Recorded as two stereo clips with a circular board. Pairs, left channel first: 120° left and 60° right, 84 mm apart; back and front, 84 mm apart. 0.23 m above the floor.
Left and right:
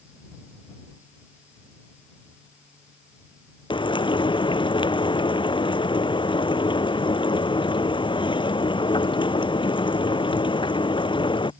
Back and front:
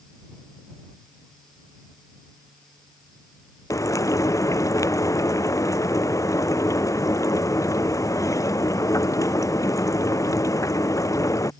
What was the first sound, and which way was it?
Frying, 130° left.